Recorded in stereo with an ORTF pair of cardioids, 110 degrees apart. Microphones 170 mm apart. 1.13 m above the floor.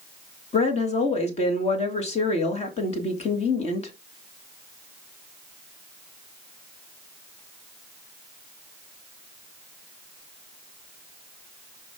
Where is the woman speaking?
40° left, 2.5 m.